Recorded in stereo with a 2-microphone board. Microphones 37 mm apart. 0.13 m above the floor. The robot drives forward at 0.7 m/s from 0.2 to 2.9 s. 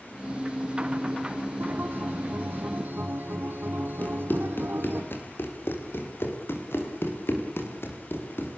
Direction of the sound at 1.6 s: 65° right (ahead or behind).